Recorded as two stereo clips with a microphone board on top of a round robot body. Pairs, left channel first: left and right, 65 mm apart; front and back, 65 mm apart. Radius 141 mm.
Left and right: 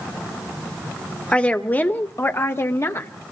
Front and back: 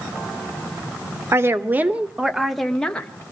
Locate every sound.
1.3 s a woman speaking: 155° left, 1.8 m; by 3.1 s 65° left, 1.8 m